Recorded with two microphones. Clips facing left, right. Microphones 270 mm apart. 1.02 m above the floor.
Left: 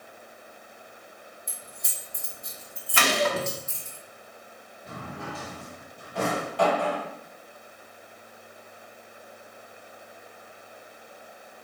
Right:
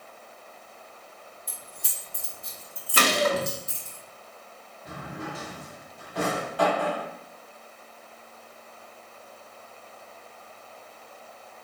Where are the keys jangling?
35° right (ahead or behind), 1.4 m.